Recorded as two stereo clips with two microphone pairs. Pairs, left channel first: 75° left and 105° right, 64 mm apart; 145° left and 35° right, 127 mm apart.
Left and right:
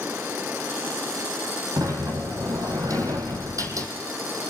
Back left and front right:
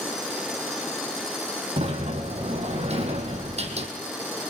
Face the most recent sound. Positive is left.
turn(degrees=-70)